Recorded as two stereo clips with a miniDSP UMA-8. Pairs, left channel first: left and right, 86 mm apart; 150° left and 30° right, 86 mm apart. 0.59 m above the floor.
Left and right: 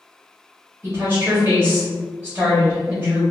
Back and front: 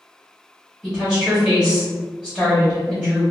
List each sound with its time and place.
0.8 s a woman speaking: 95° right, 1.1 m